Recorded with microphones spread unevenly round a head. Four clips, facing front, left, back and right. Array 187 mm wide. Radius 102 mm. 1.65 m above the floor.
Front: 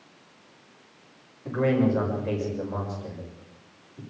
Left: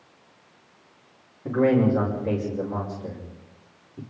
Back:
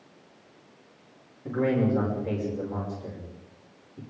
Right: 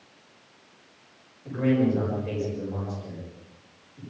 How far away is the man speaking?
About 6 m.